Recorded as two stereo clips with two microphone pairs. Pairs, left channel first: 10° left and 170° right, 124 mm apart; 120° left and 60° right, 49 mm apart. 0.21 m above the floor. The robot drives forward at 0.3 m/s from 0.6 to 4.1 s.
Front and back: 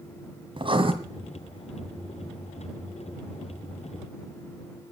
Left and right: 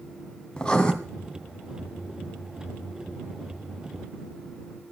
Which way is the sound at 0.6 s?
175° right.